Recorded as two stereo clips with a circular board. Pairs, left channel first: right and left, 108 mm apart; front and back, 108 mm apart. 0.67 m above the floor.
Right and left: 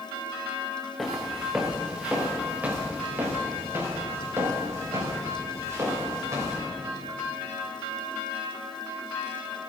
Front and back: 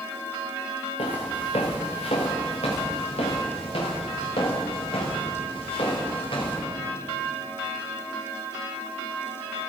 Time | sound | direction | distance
1.0 | footsteps | straight ahead | 3 m